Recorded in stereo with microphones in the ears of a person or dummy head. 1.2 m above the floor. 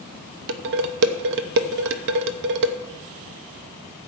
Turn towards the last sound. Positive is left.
turn(degrees=-65)  # may be behind; listen again after turning